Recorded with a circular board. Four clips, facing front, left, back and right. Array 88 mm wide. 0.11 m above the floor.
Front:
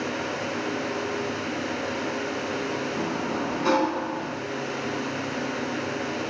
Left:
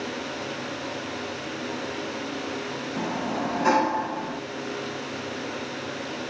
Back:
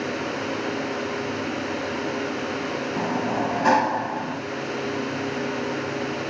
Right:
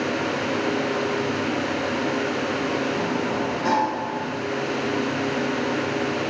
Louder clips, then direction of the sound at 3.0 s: Right 4 dB, back 3 dB; 175° left.